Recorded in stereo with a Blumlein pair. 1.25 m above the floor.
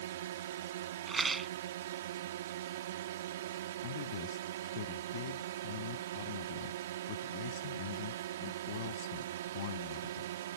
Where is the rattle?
15° right.